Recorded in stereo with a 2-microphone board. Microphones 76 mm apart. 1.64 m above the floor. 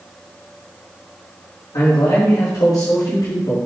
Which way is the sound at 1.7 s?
60° left (ahead or behind).